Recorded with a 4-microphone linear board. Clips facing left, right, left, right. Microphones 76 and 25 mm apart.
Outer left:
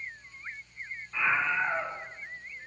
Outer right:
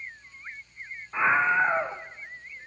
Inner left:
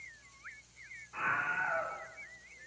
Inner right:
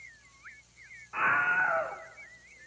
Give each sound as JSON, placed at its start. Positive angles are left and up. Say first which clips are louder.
{"t": 1.1, "sound": "a scream", "louder": "outer right 6 dB, inner right 7 dB", "side_deg": -35, "distance_m": 1.3}